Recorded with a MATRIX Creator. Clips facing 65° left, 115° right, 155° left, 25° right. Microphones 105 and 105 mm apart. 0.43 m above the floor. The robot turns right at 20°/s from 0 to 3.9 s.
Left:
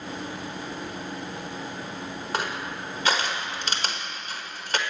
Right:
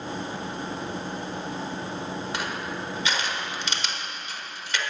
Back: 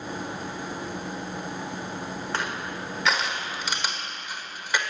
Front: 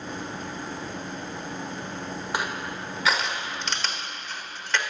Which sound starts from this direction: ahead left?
Crushing, at 2.3 s.